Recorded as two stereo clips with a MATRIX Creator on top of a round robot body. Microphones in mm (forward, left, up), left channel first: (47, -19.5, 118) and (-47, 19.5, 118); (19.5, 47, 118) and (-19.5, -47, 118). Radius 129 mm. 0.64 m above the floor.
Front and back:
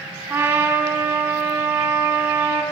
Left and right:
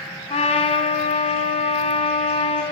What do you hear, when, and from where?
0.3 s a trumpet: 85° left, 3.5 m